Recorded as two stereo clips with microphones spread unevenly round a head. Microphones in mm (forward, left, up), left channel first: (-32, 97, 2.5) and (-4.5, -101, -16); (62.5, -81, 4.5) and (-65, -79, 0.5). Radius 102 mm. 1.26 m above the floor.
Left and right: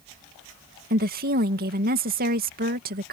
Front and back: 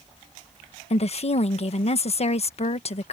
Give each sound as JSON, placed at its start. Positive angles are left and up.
{"t": 0.9, "sound": "a woman speaking", "azimuth_deg": -35}